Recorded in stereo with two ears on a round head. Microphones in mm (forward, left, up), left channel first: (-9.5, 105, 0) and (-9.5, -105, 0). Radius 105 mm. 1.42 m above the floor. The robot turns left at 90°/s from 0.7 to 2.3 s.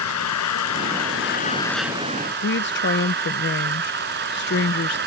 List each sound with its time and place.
0.0 s an engine running: 100° left; by 5.1 s 45° right
2.4 s a woman speaking: 50° left (ahead or behind)